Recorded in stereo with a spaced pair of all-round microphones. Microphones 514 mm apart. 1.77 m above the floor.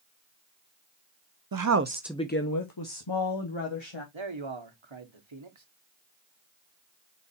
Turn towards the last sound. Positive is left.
turn(degrees=-60)  # may be behind; listen again after turning